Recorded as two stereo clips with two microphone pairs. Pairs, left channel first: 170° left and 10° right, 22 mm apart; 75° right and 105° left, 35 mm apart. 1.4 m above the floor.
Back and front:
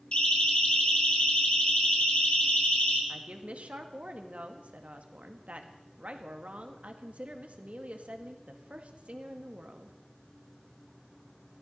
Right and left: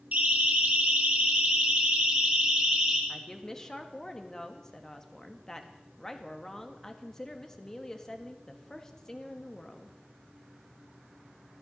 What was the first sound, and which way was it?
A siren, 140° left.